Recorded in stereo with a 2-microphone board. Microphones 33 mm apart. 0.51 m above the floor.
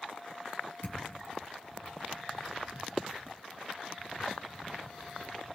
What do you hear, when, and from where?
0.8 s a thud: 85° left, 2.5 m